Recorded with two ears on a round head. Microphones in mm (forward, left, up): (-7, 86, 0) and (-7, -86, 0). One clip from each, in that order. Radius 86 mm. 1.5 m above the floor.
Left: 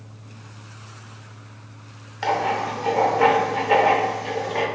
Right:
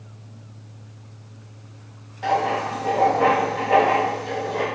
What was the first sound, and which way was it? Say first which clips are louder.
Writing: right 1 dB; 60° left (ahead or behind).